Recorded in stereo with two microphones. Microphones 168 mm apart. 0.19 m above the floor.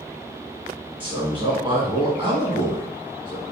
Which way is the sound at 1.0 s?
30° right (ahead or behind).